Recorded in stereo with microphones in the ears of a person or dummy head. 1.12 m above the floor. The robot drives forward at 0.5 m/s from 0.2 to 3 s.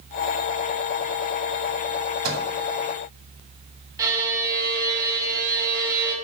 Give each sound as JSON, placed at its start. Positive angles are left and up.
{"t": 2.2, "sound": "a microwave", "side_deg": -80, "distance_m": 2.5}
{"t": 4.0, "sound": "a violin", "side_deg": -15, "distance_m": 1.0}